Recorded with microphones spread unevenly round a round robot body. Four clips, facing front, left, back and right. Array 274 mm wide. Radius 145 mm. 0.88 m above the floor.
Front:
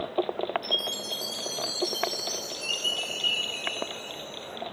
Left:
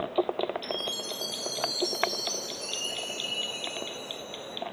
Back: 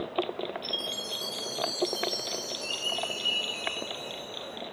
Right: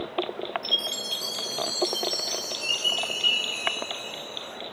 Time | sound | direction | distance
0.6 | a chime | 10° left | 5.5 m